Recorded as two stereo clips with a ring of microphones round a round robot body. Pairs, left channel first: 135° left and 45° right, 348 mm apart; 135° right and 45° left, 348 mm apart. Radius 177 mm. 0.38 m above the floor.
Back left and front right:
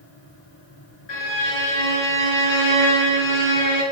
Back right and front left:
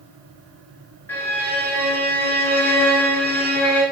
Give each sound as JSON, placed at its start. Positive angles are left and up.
{"t": 1.1, "sound": "a violin", "azimuth_deg": 140, "distance_m": 4.0}